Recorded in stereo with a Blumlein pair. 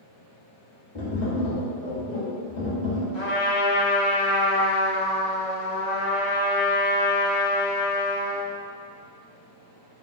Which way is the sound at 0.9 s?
40° left.